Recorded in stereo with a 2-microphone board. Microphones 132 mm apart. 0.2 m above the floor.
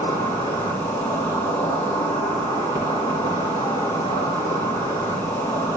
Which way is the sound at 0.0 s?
30° left (ahead or behind).